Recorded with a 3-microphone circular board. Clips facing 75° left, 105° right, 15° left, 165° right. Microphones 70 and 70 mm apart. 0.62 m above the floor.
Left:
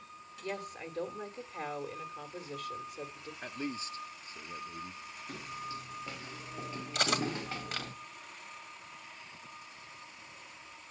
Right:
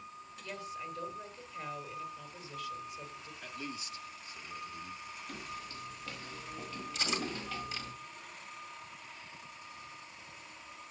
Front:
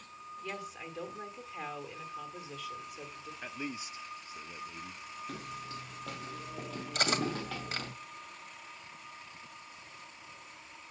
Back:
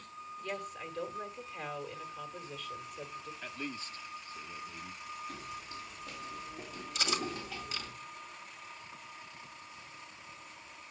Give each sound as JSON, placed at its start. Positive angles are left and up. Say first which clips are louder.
{"t": 0.4, "sound": "a woman speaking", "louder": "left 2 dB, back 2 dB", "azimuth_deg": 100, "distance_m": 2.0}
{"t": 3.4, "sound": "a man speaking", "louder": "left 5 dB, front 3 dB", "azimuth_deg": 85, "distance_m": 0.8}
{"t": 5.3, "sound": "footsteps", "louder": "left 5 dB, front 2 dB", "azimuth_deg": 0, "distance_m": 5.5}
{"t": 7.0, "sound": "cutlery clinking", "louder": "left 5 dB, front 4 dB", "azimuth_deg": 55, "distance_m": 2.0}